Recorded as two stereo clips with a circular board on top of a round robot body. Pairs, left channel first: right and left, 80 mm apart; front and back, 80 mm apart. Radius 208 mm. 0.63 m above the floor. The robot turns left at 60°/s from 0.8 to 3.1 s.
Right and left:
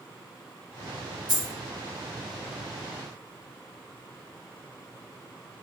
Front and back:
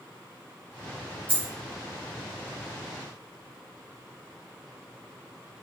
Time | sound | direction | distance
1.3 | a dropped coin | straight behind | 1.4 m